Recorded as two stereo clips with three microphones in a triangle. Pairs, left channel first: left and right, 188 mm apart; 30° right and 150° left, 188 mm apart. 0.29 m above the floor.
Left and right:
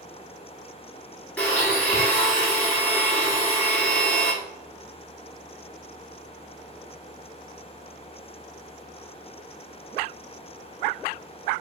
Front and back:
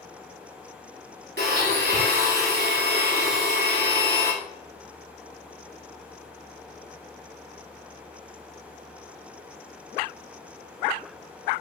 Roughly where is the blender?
Behind.